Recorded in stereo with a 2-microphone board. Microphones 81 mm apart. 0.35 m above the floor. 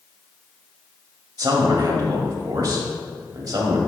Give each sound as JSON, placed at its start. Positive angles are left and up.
{"t": 1.4, "sound": "a man speaking", "side_deg": -50, "distance_m": 1.4}